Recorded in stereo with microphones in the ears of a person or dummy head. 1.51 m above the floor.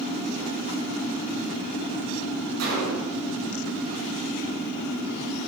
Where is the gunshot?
85° right, 8.5 m.